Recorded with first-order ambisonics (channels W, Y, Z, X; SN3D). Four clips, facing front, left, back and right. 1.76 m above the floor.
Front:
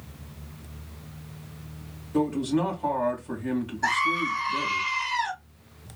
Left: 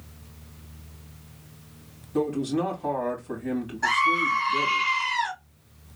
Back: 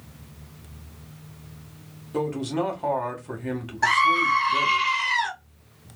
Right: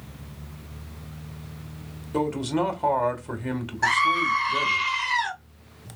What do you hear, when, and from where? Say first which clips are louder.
2.1 s a man speaking: right 1 dB, front 2 dB; 110° right, 1.9 m
3.8 s a scream: right 1 dB, back 6 dB; 150° right, 1.7 m